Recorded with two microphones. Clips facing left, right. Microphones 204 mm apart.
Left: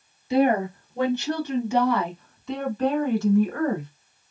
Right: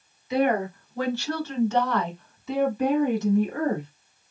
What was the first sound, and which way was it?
A woman speaking, 30° left (ahead or behind).